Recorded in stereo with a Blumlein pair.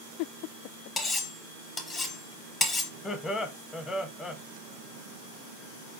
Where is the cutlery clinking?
15° left, 0.7 m.